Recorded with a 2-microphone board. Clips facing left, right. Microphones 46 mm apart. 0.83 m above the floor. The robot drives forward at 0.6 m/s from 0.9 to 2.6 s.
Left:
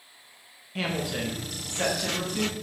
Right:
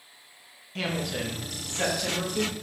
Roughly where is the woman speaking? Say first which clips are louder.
Left 1 dB; centre.